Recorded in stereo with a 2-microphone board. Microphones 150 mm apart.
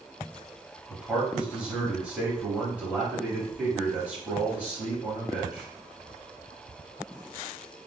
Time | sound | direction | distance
0.9 | a man speaking | 10° right (ahead or behind) | 1.1 m